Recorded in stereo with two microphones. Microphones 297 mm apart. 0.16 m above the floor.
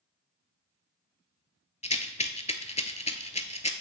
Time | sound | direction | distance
1.8 | a rattle | 20° left (ahead or behind) | 0.5 m